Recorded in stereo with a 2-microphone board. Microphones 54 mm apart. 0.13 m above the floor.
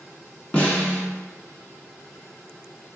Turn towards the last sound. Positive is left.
turn(degrees=25)  # may be behind; listen again after turning